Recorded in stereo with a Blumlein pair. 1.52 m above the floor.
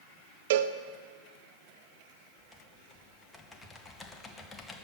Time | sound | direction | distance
0.5 | a cowbell | 55° right | 0.6 m
2.4 | typing on a keyboard | 15° left | 1.4 m